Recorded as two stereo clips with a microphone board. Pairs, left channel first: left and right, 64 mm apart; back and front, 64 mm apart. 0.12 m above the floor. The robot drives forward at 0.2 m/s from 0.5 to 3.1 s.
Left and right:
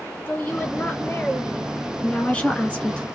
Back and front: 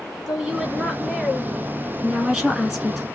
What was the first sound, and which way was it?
A woman speaking, 55° left.